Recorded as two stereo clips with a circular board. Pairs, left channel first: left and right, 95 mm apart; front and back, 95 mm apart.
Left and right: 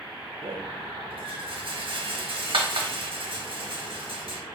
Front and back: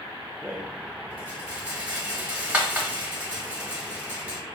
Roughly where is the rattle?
Right.